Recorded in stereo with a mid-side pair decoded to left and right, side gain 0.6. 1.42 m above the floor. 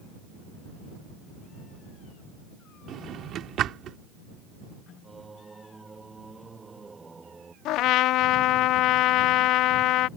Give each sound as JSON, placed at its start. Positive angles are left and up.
{"t": 2.9, "sound": "a drawer", "azimuth_deg": -50}
{"t": 5.0, "sound": "singing", "azimuth_deg": -15}
{"t": 7.7, "sound": "a trumpet", "azimuth_deg": 65}